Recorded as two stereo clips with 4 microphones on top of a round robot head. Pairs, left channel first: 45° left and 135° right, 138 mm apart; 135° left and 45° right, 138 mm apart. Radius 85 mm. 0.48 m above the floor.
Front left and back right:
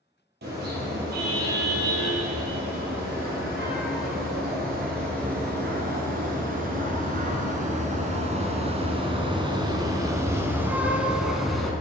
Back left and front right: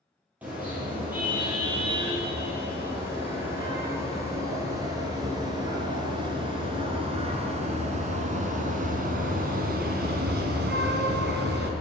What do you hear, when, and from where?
0.4 s a car horn: 125° right, 6 m; by 11.7 s 40° right, 2 m